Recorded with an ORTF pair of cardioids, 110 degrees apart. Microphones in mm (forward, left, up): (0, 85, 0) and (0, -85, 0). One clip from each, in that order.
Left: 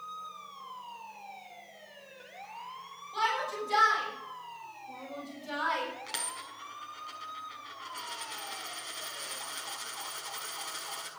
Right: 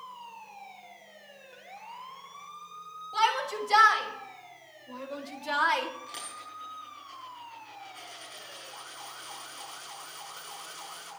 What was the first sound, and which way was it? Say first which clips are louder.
A shout: right 4 dB; 40° right.